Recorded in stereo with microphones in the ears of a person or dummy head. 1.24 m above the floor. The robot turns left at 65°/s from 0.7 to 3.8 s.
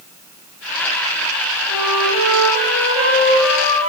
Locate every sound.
1.7 s a flute: 10° right, 1.0 m; by 3.9 s 145° right, 1.0 m